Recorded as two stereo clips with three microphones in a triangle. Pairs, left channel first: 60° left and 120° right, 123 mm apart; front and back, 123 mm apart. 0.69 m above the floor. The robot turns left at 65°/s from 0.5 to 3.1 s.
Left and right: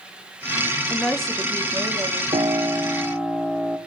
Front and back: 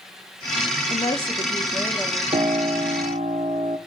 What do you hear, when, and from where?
0.9 s a woman speaking: 10° right, 0.9 m; by 2.2 s 95° right, 0.9 m
2.3 s a piano: 150° right, 0.7 m; by 3.8 s 160° left, 0.7 m